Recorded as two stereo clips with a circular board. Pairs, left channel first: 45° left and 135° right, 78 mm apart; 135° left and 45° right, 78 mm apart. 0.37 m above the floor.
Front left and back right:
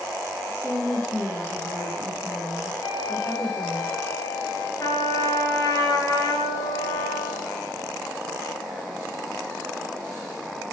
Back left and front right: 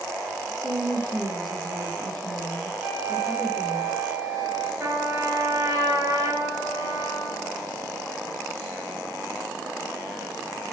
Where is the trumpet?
Straight ahead, 4 m.